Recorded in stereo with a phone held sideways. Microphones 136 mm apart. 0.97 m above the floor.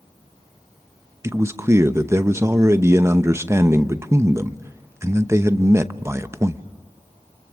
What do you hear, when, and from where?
1.2 s a man speaking: 20° right (ahead or behind), 0.8 m